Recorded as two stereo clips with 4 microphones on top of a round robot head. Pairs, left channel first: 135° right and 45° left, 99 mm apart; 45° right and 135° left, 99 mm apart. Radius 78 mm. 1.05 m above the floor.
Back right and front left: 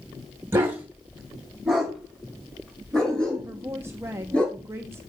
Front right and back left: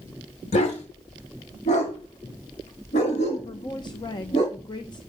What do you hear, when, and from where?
0.5 s a dog barking: 20° right, 2.5 m; by 4.4 s 55° right, 7 m
3.4 s a woman speaking: 15° right, 1.0 m